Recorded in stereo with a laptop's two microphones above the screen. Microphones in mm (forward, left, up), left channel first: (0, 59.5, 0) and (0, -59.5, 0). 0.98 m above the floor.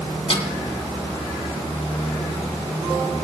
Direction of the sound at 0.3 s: 55° left (ahead or behind).